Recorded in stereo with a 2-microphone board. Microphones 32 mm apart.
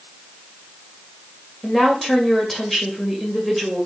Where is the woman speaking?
10° left (ahead or behind), 2 m.